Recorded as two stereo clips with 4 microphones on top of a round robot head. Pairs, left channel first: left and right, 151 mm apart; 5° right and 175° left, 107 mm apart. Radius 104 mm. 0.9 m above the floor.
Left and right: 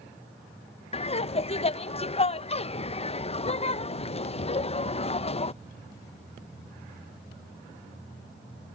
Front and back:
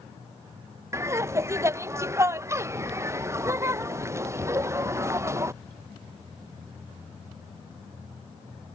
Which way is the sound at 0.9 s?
120° left.